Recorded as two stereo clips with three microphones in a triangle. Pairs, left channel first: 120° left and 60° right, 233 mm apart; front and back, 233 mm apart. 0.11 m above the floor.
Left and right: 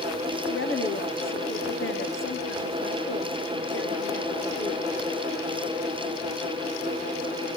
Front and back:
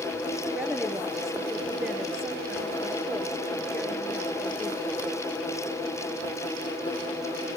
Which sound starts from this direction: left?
A woman speaking, at 0.5 s.